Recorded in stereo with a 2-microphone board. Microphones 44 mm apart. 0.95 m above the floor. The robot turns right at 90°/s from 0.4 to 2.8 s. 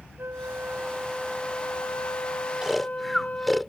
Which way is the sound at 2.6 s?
15° right (ahead or behind).